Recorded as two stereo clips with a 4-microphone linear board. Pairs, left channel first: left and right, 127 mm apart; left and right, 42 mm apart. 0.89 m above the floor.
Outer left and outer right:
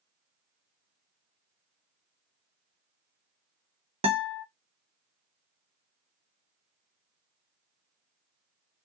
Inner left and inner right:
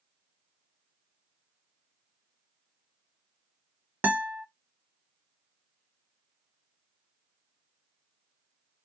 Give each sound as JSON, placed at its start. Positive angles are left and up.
{"t": 4.0, "sound": "a guitar", "side_deg": -50, "distance_m": 0.7}